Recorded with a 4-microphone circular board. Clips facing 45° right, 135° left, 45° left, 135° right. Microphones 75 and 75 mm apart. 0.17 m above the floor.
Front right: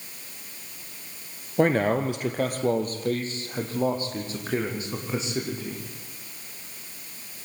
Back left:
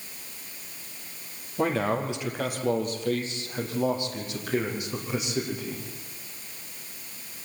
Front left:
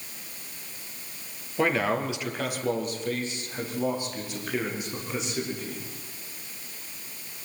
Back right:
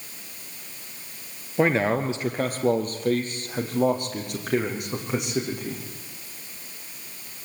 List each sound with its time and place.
1.6 s a man speaking: 70° right, 2.5 m; by 5.8 s 105° right, 8 m